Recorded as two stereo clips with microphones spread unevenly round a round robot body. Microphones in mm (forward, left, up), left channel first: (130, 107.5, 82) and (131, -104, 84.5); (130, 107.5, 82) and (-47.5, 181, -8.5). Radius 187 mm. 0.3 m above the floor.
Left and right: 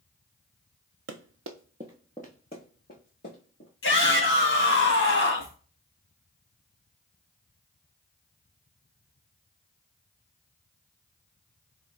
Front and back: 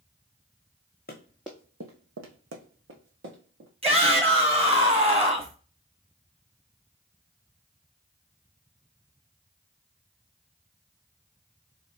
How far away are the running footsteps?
About 0.8 m.